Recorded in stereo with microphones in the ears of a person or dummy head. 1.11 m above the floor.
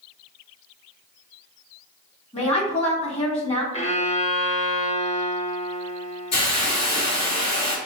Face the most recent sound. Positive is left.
turn(degrees=45)  # may be behind; listen again after turning